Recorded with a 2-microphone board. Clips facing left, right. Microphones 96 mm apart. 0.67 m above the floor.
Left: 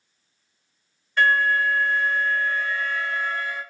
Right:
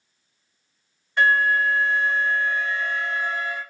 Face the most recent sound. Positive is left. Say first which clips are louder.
# right 1 dB
turn(degrees=-20)  # may be behind; listen again after turning